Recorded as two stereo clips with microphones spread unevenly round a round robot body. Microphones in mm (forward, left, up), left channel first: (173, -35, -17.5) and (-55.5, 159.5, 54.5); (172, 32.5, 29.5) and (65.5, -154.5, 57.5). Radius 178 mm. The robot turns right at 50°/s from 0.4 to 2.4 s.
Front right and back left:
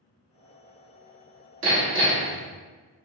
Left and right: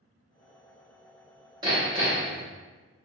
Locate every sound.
1.6 s hammering: 170° left, 1.0 m; by 2.4 s 150° right, 1.0 m